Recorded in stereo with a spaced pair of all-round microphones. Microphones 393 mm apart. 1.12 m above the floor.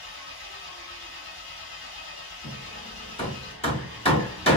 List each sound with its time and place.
0.0 s an engine running: 60° left (ahead or behind), 1.0 m
2.4 s hammering: 15° left (ahead or behind), 1.0 m